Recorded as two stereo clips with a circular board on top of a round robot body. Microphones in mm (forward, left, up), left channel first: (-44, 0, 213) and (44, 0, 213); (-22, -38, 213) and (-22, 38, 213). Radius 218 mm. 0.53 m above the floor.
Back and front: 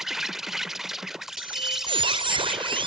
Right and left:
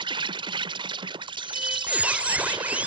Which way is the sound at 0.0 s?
85° left.